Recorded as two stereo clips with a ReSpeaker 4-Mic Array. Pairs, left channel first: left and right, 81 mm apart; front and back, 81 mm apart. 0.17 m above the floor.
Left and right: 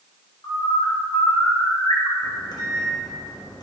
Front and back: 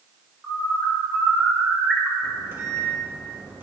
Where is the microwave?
120° left, 3 m.